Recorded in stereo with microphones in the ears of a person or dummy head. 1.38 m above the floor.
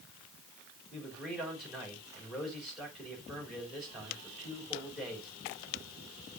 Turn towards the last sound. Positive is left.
turn(degrees=-5)  # may be behind; listen again after turning